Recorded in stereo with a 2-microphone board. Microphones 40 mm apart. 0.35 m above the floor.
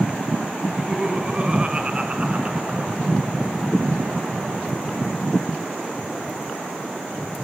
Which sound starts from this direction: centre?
Laughter, at 0.7 s.